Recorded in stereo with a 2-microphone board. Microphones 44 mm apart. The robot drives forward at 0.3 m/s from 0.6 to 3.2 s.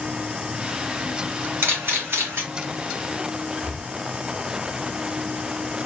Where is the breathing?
50° right (ahead or behind), 1.7 m.